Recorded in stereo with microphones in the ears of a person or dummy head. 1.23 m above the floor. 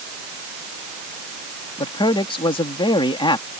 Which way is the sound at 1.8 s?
25° left (ahead or behind).